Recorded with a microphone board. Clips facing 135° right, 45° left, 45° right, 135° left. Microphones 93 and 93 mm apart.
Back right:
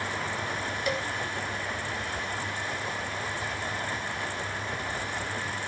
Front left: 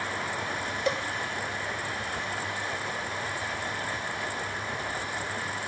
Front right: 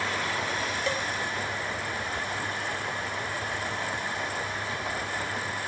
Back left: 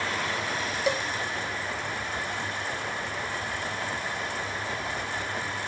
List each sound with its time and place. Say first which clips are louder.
0.9 s a cowbell: front left 2 dB, back left 5 dB; 75° left, 0.6 m